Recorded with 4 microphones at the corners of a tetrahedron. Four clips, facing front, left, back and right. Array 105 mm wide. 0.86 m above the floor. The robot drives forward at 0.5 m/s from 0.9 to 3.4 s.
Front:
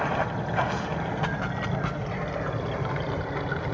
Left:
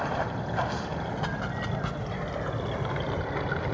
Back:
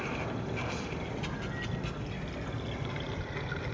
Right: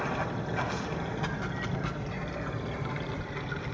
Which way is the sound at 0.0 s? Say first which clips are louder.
Left 2 dB, front 9 dB; 20° left.